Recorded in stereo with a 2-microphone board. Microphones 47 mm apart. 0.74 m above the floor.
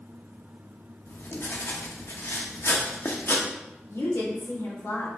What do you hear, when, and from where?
1.1 s writing: 55° left (ahead or behind), 1.0 m
3.9 s a woman speaking: 70° left (ahead or behind), 3 m